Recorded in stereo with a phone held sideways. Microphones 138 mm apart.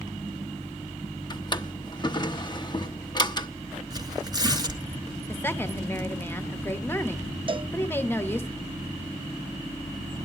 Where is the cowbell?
40° right (ahead or behind), 0.6 m.